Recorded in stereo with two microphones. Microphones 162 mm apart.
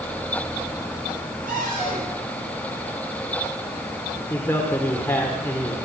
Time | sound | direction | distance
1.5 | a cupboard door | 60° right (ahead or behind) | 9.5 m
4.3 | a man speaking | 15° left (ahead or behind) | 1.8 m